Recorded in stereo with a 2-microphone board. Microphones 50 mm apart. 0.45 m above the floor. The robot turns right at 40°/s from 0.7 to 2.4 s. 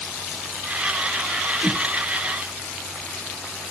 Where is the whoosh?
20° right (ahead or behind), 0.8 m; by 1.8 s 15° right (ahead or behind), 0.8 m.